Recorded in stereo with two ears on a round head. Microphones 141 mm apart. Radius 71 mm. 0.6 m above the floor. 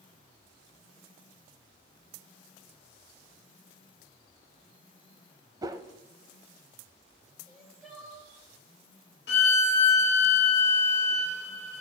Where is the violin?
70° left (ahead or behind), 1.1 m.